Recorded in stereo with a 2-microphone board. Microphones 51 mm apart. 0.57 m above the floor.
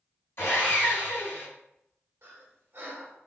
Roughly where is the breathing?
Right.